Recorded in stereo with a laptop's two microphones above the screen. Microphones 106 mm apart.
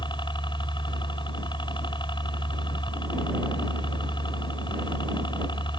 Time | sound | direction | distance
0.0 | a helicopter | 50° left (ahead or behind) | ?